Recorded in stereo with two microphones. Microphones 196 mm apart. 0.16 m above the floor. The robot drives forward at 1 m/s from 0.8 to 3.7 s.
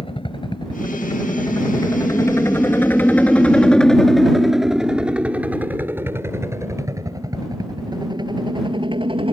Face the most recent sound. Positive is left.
turn(degrees=-25)  # may be behind; listen again after turning